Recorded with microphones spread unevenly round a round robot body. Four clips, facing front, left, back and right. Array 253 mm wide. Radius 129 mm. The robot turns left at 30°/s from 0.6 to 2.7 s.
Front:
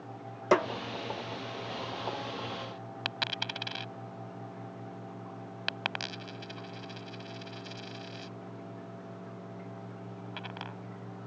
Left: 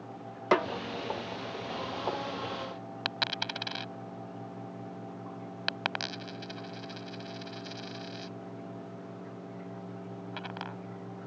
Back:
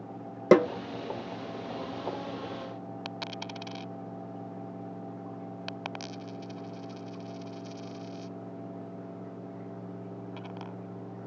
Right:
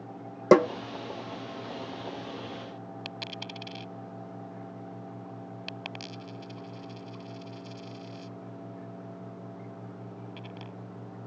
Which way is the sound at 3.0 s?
50° left.